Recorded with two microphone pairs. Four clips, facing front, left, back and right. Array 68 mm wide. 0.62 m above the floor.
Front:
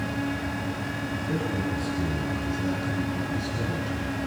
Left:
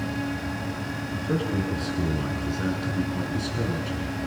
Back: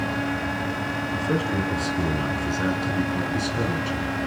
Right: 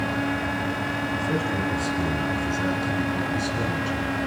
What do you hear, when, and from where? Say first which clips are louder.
1.1 s a man speaking: left 2 dB, back 5 dB; 170° left, 6.5 m; by 4.2 s 170° right, 5.5 m